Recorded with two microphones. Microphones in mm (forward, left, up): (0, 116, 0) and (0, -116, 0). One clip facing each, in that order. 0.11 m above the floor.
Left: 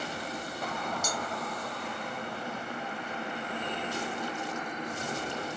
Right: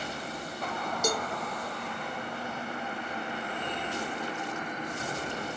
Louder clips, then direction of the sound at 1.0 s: Right 6 dB; 65° right (ahead or behind).